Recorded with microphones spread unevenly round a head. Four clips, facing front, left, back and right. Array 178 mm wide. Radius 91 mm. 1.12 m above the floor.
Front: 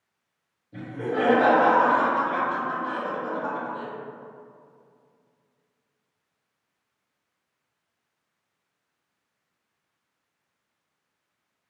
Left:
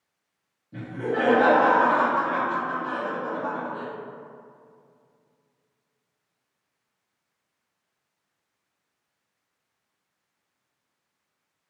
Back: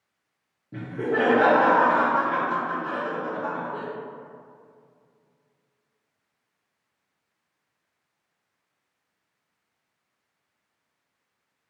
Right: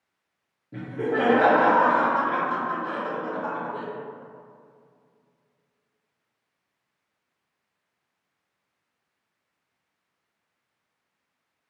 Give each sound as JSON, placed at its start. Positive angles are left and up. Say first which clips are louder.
{"t": 0.7, "sound": "laughter", "louder": "right 1 dB, back 2 dB", "azimuth_deg": -150, "distance_m": 1.1}